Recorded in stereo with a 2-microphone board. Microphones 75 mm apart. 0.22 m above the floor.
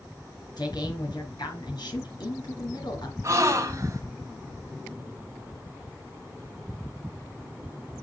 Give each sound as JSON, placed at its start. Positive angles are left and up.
{"t": 0.6, "sound": "a man speaking", "side_deg": 65, "distance_m": 4.0}
{"t": 3.2, "sound": "a gasp", "side_deg": -35, "distance_m": 1.8}